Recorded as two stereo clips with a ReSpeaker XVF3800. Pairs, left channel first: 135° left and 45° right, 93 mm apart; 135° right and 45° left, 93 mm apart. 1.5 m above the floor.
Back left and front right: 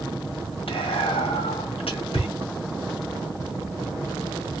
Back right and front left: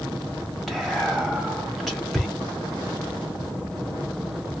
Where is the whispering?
135° left, 1.4 m.